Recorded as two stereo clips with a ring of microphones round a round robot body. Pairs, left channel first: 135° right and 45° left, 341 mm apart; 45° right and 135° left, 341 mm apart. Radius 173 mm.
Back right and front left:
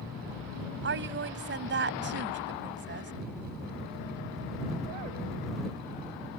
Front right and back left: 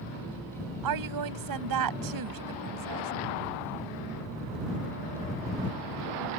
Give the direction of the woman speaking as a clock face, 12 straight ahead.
9 o'clock.